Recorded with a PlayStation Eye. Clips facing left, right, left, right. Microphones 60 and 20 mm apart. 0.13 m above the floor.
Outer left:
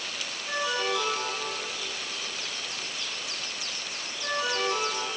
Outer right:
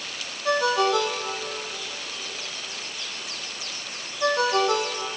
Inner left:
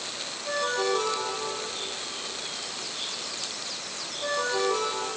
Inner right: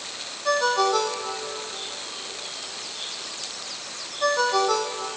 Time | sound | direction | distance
0.5 | a ringtone | 80° right | 3.5 m